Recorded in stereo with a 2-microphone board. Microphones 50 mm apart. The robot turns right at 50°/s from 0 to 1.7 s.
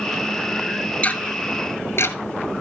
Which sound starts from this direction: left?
Ticking, at 1.0 s.